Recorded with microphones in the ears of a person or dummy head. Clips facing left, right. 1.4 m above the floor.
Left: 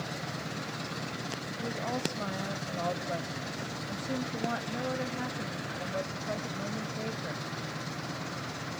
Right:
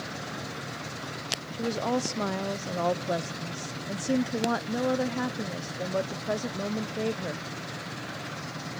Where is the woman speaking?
55° right (ahead or behind), 0.6 m.